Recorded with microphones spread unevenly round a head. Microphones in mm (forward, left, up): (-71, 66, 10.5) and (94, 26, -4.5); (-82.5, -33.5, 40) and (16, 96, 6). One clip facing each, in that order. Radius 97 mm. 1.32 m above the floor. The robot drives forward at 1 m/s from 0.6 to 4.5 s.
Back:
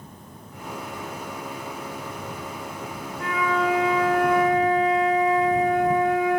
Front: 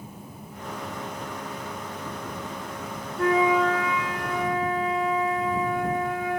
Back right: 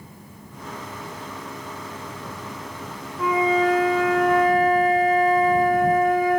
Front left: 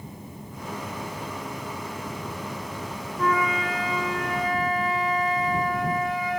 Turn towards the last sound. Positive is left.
turn(degrees=-160)